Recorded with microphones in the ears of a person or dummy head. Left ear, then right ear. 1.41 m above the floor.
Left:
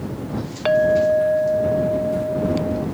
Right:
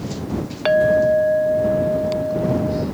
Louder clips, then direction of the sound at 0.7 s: Right 1 dB; centre (ahead or behind).